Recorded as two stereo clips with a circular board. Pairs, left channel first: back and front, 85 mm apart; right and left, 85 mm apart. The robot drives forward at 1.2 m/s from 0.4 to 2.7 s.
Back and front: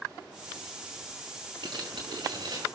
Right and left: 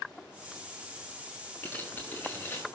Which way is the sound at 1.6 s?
20° right.